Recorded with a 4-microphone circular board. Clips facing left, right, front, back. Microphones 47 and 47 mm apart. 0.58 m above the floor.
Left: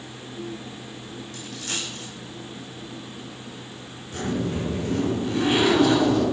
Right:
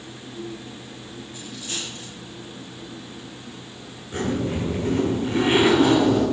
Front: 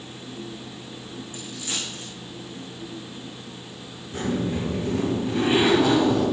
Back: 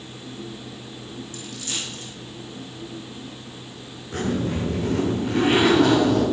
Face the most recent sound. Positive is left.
turn(degrees=-155)